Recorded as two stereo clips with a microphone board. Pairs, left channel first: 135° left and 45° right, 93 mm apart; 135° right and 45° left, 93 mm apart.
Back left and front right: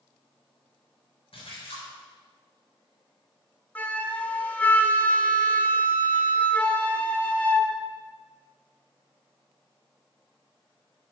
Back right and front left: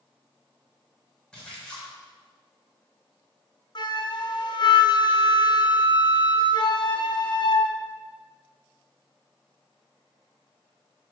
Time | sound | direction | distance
1.3 | a splash | 145° left | 4 m
3.8 | a flute | 155° right | 1.0 m